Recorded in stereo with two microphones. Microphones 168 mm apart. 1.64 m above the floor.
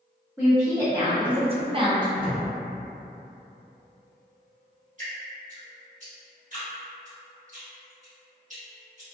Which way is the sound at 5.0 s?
45° right (ahead or behind).